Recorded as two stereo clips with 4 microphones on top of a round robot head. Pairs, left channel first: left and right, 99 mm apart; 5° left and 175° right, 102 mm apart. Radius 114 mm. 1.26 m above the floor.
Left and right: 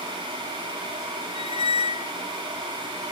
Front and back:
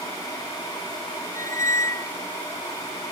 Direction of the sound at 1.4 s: 70° left.